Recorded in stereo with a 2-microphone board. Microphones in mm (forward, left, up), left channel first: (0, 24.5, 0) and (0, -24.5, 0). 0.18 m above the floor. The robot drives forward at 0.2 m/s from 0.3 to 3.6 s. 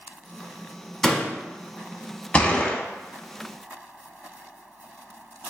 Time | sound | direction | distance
1.0 | a door slam | 10° left (ahead or behind) | 0.8 m
2.3 | a gunshot | 25° left (ahead or behind) | 0.5 m